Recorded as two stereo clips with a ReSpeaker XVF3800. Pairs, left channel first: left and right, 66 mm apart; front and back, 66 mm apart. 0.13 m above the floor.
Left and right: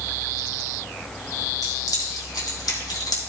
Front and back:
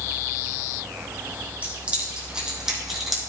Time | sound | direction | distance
1.6 | keys jangling | 115° left | 3 m